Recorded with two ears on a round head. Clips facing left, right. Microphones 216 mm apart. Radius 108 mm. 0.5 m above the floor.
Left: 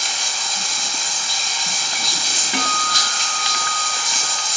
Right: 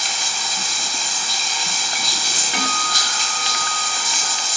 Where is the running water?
75° right (ahead or behind), 5.5 m.